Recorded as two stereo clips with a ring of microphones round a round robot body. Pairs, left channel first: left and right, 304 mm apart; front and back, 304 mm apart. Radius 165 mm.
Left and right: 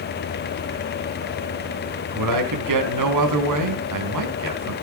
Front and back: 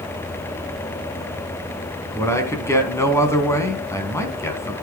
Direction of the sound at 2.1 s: 80° right.